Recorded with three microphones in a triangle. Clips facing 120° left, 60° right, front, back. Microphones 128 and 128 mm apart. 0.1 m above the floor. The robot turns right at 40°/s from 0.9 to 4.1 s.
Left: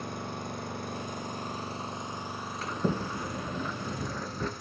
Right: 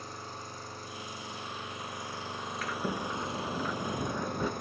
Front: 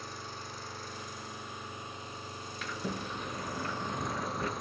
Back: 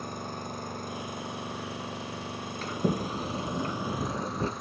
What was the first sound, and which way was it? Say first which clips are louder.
An engine running: left 6 dB, back 7 dB; 145° left.